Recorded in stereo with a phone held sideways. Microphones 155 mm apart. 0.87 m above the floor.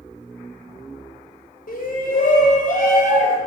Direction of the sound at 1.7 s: 70° left (ahead or behind).